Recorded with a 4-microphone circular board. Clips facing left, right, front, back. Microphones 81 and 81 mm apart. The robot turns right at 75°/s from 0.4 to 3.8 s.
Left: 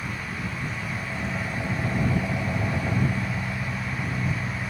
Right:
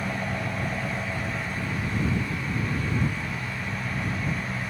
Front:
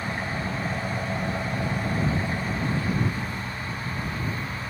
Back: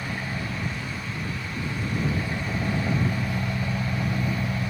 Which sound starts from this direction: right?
An engine running, at 0.0 s.